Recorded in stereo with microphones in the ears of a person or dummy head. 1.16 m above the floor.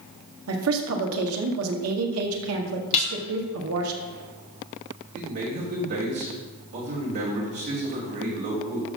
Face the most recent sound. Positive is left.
turn(degrees=-50)  # may be behind; listen again after turning